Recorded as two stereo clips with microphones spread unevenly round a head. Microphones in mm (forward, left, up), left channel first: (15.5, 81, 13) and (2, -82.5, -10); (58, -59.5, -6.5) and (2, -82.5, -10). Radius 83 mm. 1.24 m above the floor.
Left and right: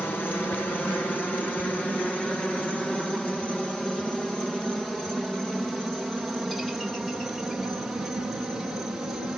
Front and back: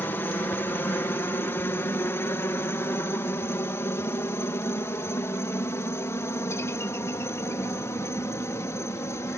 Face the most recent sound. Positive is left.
turn(degrees=-10)